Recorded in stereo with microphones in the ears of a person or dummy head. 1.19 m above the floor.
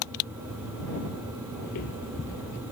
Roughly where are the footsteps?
Left.